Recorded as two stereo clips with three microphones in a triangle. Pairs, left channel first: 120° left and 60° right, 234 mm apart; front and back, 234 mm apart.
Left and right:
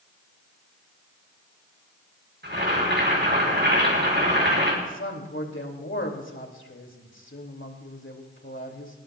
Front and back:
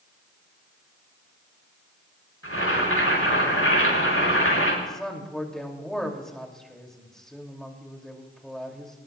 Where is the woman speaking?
90° left, 2.5 m.